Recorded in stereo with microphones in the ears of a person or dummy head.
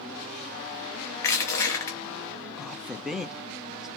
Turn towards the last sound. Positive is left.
turn(degrees=5)  # may be behind; listen again after turning